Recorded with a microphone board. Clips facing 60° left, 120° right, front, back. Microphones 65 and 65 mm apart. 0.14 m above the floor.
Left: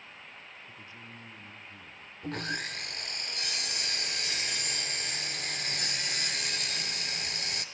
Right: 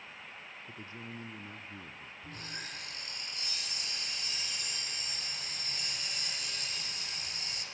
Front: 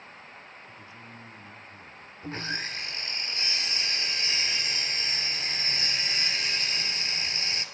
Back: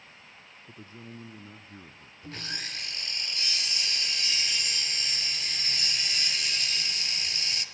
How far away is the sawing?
About 1.4 m.